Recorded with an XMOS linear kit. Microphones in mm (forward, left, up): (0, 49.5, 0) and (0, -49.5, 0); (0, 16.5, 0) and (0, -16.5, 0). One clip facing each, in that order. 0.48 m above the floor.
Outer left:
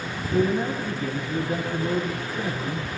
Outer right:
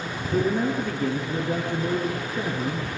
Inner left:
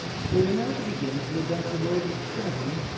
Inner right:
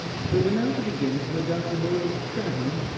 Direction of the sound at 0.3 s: 75° right (ahead or behind).